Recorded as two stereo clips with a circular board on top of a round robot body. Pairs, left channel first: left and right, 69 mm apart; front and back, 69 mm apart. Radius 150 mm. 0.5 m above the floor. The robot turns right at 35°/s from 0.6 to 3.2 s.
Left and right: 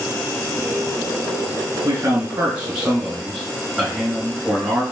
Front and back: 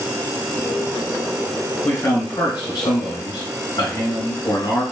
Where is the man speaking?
55° right, 2.5 m; by 4.8 s 5° right, 2.5 m.